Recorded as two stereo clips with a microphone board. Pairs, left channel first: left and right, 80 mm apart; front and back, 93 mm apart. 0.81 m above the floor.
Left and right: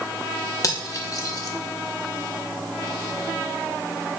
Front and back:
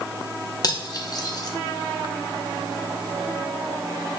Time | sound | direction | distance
0.6 | cutlery clinking | 45° left | 0.9 m